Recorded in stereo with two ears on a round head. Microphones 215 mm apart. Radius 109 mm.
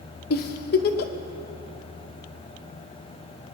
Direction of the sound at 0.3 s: 40° left (ahead or behind).